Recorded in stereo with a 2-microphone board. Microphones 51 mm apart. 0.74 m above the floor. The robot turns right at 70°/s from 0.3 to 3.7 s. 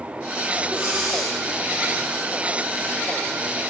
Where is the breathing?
30° right, 9.5 m; by 1.4 s 20° left, 9.5 m.